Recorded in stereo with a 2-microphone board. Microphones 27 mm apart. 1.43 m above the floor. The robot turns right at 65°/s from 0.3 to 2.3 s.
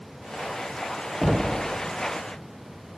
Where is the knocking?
5° right (ahead or behind), 0.5 m; by 1.6 s 25° right (ahead or behind), 0.5 m.